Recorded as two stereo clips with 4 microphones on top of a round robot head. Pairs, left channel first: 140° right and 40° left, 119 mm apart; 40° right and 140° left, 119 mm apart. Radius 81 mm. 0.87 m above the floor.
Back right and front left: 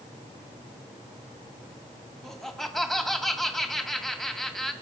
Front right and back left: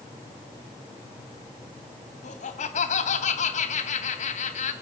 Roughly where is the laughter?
Ahead right.